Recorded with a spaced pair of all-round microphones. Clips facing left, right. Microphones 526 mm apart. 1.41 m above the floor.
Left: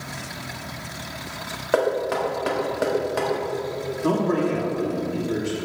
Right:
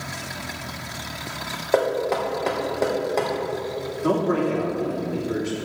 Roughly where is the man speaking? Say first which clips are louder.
Even; centre.